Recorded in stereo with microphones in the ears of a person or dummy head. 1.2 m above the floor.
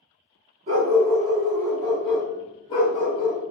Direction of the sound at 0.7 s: 40° right (ahead or behind).